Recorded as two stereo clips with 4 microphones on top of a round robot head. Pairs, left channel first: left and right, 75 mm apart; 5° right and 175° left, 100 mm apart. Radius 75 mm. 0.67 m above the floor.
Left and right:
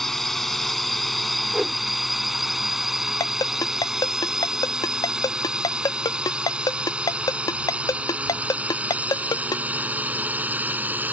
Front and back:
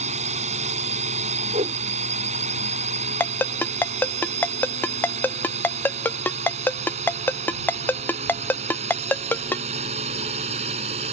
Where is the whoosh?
165° right.